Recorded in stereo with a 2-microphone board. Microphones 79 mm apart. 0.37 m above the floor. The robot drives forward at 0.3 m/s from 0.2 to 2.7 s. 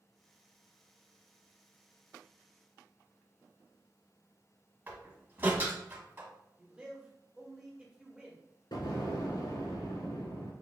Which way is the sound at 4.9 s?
25° right (ahead or behind).